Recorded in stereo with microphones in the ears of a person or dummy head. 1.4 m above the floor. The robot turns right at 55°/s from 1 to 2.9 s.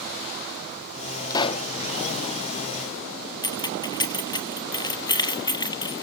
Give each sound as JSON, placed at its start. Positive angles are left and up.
{"t": 1.3, "sound": "a pop", "side_deg": 25, "distance_m": 1.0}
{"t": 3.4, "sound": "keys jangling", "side_deg": 15, "distance_m": 1.5}